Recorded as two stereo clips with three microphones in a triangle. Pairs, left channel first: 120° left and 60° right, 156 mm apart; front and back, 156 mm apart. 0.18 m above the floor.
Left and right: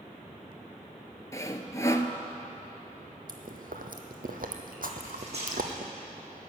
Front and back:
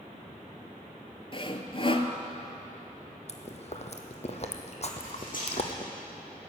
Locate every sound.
1.3 s sawing: 50° left, 0.7 m
3.3 s chewing: 45° right, 1.2 m
5.0 s cutlery clinking: 15° right, 5 m